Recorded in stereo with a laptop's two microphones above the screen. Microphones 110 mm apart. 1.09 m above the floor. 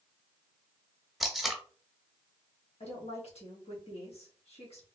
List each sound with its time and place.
1.2 s tape being pulled: centre (ahead or behind), 0.9 m
2.8 s a woman speaking: 65° left (ahead or behind), 2.0 m